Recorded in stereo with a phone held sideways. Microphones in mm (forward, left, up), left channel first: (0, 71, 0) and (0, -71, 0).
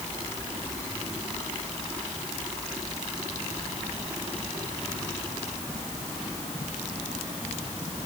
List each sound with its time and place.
Only background noise.